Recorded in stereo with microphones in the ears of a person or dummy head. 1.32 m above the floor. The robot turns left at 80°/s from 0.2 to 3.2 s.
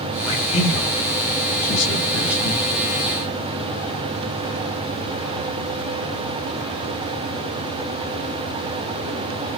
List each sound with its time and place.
0.3 s a man speaking: 20° left (ahead or behind), 2.5 m; by 2.6 s 30° right (ahead or behind), 2.5 m